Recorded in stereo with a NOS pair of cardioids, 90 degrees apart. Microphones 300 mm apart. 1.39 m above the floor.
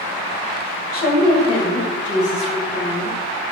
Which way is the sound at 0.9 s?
45° left.